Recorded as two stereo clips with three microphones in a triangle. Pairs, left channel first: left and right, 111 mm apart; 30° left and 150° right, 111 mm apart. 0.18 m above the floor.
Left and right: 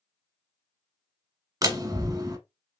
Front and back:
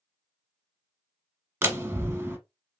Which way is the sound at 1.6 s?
100° right.